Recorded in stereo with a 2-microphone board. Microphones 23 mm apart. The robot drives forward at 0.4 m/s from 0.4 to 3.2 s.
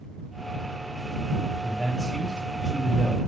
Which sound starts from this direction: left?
A man speaking, at 1.6 s.